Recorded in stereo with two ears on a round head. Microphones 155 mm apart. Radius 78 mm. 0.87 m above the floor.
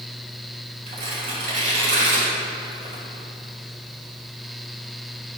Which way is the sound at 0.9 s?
50° right (ahead or behind).